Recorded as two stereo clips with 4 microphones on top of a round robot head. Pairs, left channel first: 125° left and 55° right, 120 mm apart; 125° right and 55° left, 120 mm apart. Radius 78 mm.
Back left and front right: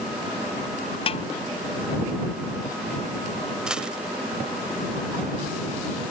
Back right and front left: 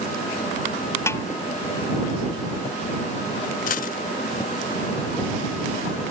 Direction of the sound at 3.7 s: 140° right.